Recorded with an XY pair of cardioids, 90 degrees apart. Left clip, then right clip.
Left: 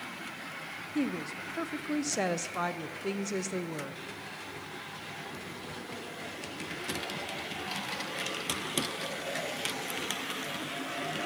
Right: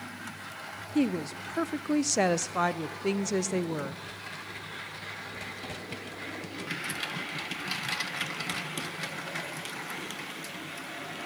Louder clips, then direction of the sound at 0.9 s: Right 5 dB; 40° right.